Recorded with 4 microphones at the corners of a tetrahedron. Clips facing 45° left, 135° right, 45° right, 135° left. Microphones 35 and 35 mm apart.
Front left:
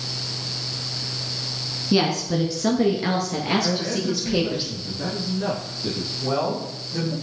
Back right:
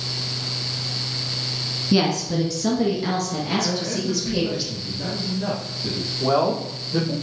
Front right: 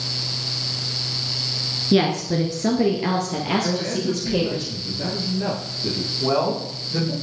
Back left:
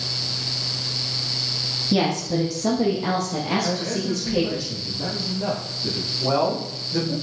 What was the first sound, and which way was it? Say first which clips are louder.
A woman speaking: even, front right 3 dB; 45° right.